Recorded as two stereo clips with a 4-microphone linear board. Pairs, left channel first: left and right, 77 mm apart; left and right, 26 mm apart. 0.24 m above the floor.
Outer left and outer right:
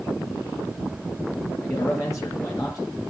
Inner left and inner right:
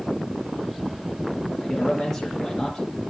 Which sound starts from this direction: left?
A man speaking, at 1.6 s.